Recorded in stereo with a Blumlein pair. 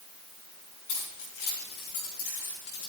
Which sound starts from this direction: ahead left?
Keys jangling, at 0.9 s.